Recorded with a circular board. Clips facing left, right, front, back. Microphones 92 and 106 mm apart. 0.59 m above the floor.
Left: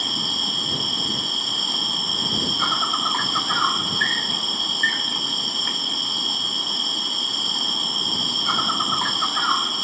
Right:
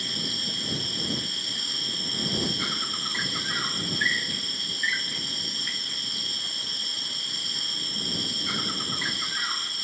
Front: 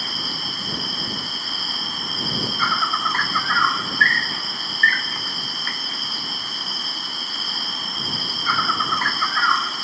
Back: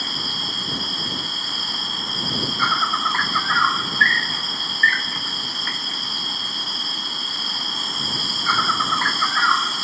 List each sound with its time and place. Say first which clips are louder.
0.0 s an insect: left 6 dB, back 1 dB; 95° left